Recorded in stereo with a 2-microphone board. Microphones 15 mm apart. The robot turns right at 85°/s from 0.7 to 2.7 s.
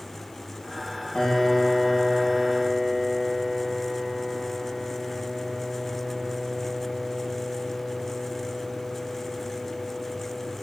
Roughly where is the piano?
Left.